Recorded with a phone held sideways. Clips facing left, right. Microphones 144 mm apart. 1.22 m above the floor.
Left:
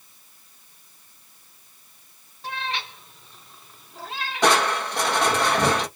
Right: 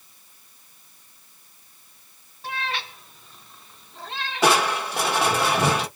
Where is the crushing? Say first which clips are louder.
Even; 5° right (ahead or behind), 1.1 m.